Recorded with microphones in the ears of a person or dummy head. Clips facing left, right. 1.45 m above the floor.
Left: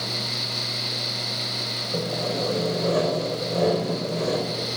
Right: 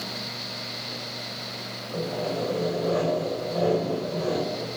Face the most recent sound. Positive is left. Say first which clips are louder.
# left 1 dB
turn(degrees=50)  # may be behind; listen again after turning